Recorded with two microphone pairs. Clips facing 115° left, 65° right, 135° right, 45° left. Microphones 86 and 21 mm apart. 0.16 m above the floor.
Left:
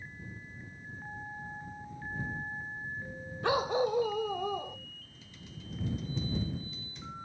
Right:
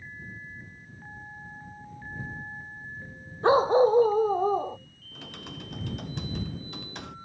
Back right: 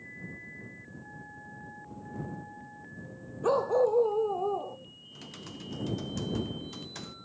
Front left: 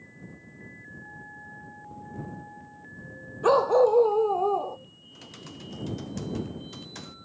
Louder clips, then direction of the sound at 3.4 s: Right 9 dB, front left 6 dB; 10° right.